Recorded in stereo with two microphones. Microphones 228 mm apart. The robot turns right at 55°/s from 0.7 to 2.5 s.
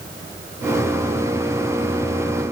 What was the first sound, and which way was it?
Only background noise.